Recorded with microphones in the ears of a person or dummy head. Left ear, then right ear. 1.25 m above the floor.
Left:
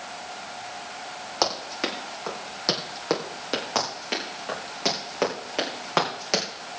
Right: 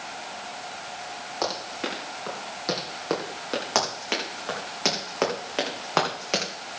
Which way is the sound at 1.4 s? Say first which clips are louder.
Left 4 dB; 35° left (ahead or behind).